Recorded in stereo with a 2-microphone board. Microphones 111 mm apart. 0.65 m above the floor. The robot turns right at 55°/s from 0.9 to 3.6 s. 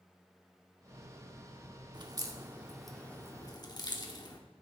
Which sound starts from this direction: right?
A crack, at 1.9 s.